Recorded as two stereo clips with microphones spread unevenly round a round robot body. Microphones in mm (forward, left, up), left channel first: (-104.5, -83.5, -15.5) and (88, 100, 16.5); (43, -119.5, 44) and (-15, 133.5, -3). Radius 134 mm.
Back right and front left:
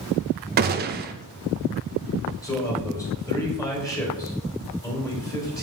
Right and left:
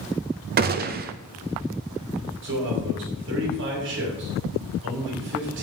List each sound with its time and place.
0.6 s a gunshot: 90° left, 0.6 m
2.4 s a man speaking: 145° left, 2.5 m